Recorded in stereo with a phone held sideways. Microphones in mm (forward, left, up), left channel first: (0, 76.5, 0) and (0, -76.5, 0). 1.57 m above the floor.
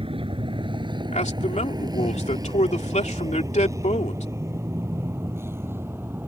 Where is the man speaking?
50° left (ahead or behind).